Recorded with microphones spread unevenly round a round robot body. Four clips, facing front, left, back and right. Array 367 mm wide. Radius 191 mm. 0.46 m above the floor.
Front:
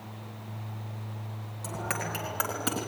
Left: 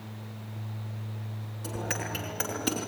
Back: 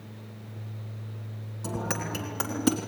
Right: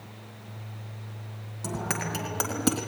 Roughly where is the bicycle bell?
Behind right.